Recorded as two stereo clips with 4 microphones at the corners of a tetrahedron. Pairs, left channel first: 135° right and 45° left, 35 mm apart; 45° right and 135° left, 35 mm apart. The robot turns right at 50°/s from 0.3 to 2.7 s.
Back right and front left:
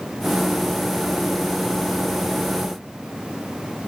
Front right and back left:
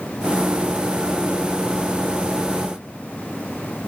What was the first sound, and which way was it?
Only background noise.